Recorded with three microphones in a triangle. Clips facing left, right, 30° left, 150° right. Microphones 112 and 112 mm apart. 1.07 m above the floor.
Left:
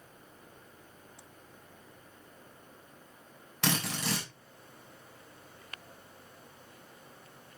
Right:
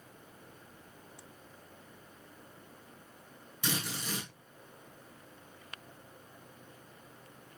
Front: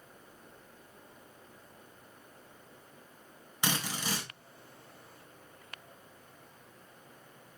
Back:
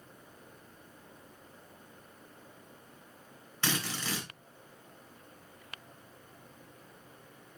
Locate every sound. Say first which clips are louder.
3.6 s a drill: left 5 dB, front 1 dB; 105° left, 4 m